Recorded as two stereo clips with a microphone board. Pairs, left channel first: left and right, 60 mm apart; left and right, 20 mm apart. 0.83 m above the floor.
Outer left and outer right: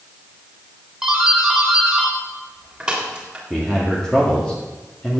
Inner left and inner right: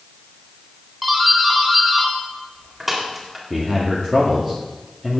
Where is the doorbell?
10° right (ahead or behind), 3.5 m.